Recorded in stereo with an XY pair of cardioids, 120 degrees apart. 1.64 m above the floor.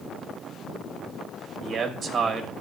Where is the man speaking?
40° right, 1.1 m.